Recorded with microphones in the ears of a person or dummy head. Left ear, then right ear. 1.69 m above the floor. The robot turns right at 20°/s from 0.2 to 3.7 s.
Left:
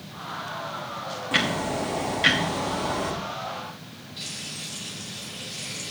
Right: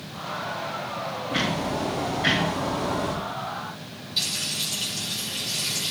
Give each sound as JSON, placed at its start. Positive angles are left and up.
{"t": 1.3, "sound": "ticking", "azimuth_deg": 95, "distance_m": 1.3}
{"t": 4.2, "sound": "frying", "side_deg": -40, "distance_m": 6.0}